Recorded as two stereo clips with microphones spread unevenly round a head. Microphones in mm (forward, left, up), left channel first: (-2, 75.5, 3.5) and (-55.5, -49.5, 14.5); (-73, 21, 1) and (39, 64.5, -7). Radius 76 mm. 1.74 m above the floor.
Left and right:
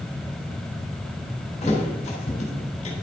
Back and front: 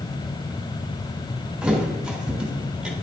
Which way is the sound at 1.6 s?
105° left.